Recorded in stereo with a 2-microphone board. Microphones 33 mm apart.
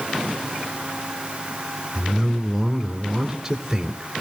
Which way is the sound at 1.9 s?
5° right (ahead or behind).